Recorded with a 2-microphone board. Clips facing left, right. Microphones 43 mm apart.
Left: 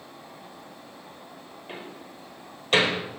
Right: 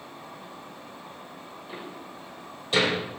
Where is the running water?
50° right (ahead or behind), 7 m.